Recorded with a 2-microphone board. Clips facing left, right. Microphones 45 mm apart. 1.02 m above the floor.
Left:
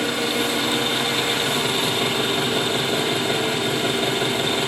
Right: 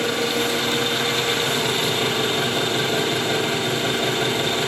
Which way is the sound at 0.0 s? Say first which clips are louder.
Right 1 dB; 10° left (ahead or behind).